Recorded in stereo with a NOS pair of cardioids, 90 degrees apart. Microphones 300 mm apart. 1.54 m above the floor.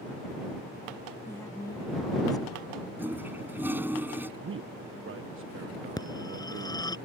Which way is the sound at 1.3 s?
5° left.